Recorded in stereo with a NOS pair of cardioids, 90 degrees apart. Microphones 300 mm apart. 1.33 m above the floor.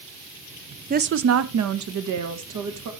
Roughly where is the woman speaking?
Ahead right.